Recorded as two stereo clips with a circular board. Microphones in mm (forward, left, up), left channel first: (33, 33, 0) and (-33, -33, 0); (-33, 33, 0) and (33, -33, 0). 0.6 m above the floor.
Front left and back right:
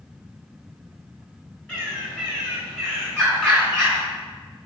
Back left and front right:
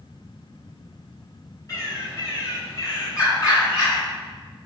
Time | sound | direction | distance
1.7 | a bird | 120° left | 1.5 m